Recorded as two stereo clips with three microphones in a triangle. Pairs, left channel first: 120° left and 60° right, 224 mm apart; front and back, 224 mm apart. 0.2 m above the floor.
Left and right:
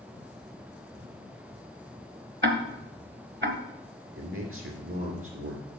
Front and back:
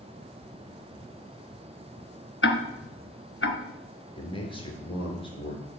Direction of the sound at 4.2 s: 65° right.